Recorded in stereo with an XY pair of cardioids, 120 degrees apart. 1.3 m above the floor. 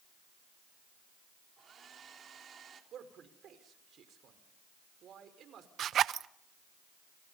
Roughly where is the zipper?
Ahead right.